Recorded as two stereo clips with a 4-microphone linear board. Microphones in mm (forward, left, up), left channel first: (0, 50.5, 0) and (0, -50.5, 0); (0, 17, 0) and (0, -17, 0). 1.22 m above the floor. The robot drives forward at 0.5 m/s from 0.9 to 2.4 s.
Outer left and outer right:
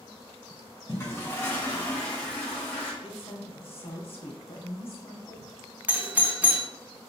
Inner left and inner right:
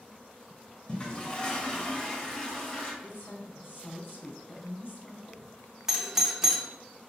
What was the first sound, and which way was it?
A toilet flushing, 25° left (ahead or behind).